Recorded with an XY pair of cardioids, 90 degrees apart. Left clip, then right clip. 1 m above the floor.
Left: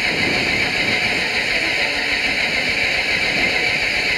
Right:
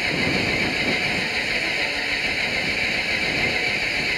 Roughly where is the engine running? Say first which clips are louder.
Left 4 dB; ahead left.